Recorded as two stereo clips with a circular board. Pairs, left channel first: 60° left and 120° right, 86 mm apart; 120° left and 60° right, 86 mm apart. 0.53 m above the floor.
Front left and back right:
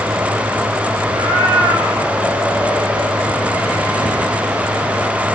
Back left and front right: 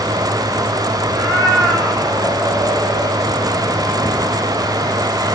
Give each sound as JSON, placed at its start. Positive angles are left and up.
{"t": 1.1, "sound": "a cat meowing", "azimuth_deg": -150, "distance_m": 5.5}